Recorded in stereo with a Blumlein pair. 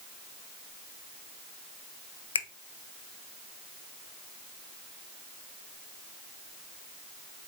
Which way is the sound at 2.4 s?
70° left.